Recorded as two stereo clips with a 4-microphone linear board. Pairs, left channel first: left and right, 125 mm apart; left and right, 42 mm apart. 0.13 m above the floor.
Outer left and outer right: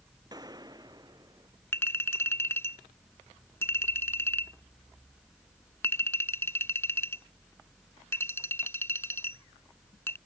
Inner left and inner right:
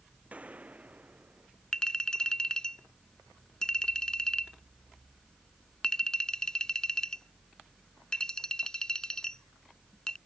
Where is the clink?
20° left (ahead or behind).